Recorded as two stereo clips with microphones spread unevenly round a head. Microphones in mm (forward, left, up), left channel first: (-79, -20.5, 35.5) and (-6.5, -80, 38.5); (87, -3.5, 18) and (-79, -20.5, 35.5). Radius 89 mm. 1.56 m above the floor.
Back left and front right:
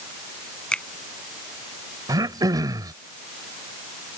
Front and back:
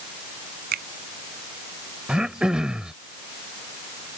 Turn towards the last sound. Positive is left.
turn(degrees=-90)